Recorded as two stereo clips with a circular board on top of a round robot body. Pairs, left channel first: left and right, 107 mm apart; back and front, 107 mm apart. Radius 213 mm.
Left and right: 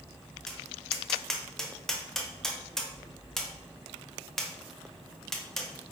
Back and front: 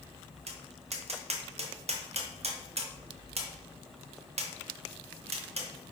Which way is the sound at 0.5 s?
5° left.